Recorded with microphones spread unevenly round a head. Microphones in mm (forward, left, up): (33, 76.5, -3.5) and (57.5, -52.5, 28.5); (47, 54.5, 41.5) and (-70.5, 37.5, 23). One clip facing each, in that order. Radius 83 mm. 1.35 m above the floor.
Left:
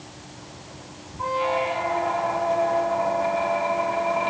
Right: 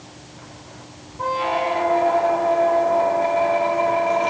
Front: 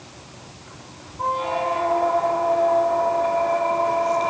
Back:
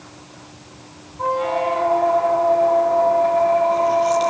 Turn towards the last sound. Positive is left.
turn(degrees=-75)